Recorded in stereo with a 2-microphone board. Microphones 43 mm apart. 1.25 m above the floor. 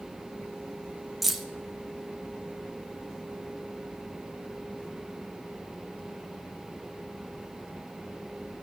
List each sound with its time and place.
1.2 s keys jangling: 5° right (ahead or behind), 0.9 m